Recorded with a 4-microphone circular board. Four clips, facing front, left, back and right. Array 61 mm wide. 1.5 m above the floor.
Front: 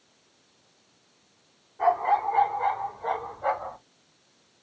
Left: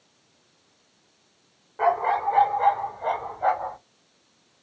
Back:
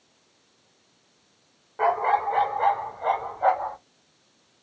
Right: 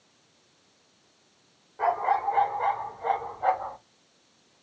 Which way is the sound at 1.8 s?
155° left.